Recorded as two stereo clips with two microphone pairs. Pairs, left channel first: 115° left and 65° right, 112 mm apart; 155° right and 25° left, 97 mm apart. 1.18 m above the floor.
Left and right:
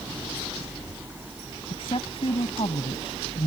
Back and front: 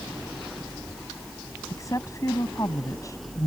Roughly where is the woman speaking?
Behind left.